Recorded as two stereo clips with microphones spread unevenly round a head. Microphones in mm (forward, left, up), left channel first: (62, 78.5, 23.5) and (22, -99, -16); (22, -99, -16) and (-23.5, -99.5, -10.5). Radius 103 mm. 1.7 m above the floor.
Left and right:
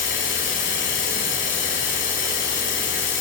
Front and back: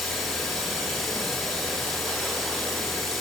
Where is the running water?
95° left, 4.5 m.